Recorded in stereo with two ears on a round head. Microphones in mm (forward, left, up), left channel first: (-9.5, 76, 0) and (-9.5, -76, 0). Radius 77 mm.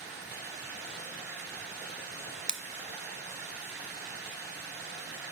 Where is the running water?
70° right (ahead or behind), 3.5 m.